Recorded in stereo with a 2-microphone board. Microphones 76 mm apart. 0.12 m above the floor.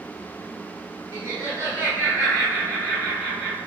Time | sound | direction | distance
1.1 | laughter | 40° right (ahead or behind) | 1.8 m